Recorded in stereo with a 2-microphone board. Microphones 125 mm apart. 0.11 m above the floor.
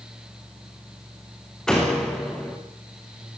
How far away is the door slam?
About 8 m.